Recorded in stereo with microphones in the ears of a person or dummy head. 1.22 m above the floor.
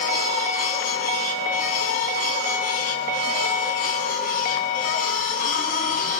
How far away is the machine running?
About 9.5 m.